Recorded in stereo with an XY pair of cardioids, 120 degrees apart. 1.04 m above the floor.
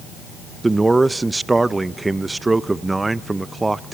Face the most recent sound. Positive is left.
turn(degrees=-15)